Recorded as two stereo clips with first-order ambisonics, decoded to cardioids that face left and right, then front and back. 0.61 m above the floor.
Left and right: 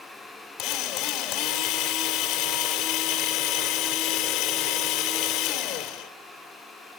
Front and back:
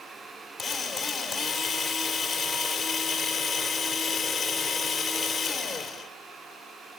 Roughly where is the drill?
Left.